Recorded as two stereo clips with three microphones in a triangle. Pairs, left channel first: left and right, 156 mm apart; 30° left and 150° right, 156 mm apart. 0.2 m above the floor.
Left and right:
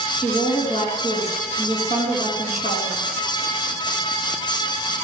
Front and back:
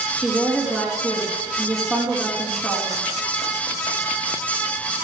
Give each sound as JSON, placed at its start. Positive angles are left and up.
{"t": 0.2, "sound": "a woman speaking", "azimuth_deg": 120, "distance_m": 4.5}